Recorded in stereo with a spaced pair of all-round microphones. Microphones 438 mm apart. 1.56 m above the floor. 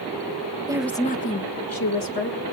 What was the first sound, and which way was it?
A woman speaking, 10° right (ahead or behind).